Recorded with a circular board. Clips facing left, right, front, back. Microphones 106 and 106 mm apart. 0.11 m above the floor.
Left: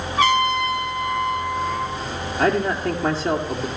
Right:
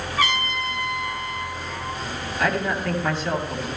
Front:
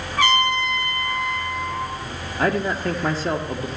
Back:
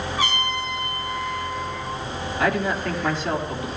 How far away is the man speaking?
About 2.5 m.